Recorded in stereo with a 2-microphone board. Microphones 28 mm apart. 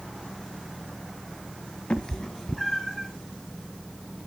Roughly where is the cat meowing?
Left.